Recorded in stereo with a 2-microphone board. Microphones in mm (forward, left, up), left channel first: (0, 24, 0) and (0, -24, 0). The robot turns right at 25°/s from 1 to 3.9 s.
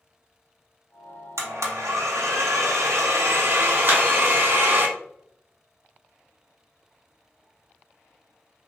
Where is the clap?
45° right (ahead or behind), 1.2 m.